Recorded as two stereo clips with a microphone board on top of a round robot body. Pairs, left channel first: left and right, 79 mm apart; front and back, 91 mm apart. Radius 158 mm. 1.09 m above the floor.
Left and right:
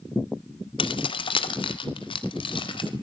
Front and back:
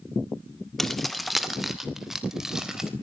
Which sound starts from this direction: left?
Keys jangling, at 0.8 s.